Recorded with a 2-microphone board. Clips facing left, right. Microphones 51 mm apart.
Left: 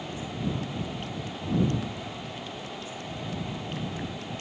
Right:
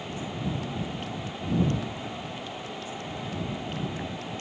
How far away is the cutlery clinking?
I don't hear cutlery clinking.